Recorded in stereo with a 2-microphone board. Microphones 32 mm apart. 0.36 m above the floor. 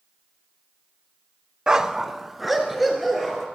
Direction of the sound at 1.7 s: 25° right (ahead or behind).